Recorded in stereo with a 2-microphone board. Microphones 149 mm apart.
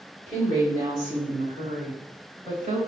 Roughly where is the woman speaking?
Right.